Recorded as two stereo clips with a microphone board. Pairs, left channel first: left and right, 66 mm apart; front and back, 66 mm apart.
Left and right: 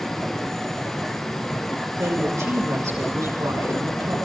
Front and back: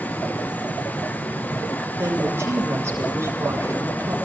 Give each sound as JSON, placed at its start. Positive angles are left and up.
{"t": 2.0, "sound": "a woman speaking", "azimuth_deg": -130, "distance_m": 6.5}